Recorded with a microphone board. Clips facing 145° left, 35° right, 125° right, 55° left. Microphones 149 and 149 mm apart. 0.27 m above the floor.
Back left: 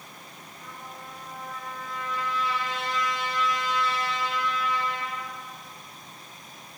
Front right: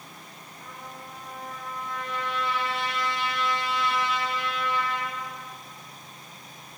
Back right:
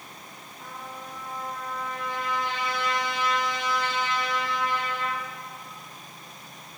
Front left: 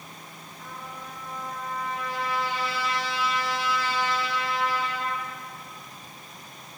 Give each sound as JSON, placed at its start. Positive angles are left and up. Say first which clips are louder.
{"t": 0.6, "sound": "a trumpet", "louder": "even, back right 1 dB", "azimuth_deg": -55, "distance_m": 6.5}